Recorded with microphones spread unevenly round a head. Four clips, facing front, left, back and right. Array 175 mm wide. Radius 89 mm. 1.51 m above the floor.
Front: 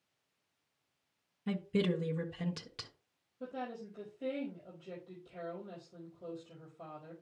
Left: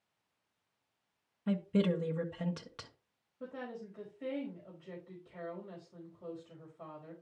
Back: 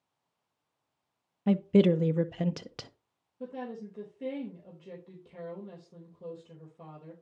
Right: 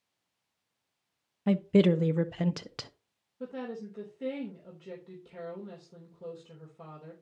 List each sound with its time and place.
1.5 s a woman speaking: 145° right, 0.6 m
3.4 s a woman speaking: 135° right, 3 m